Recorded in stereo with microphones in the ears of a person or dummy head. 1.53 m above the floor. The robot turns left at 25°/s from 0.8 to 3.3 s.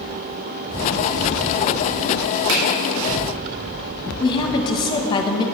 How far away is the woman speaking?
About 0.8 m.